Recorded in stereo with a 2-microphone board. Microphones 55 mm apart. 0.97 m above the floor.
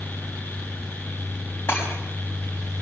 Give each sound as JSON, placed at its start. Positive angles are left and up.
{"t": 1.7, "sound": "breaking glass", "side_deg": 50, "distance_m": 4.5}